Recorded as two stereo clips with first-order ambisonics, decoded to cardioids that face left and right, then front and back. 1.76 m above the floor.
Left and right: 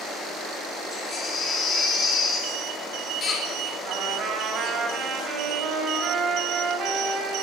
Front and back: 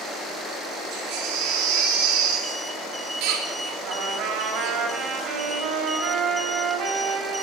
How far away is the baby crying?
About 3.5 m.